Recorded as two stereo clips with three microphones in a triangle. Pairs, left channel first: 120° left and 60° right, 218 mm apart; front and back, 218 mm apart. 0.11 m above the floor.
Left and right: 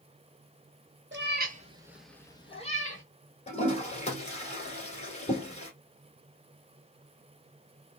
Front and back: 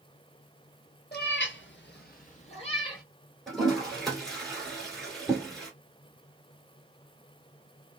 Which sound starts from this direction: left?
A toilet flushing, at 3.5 s.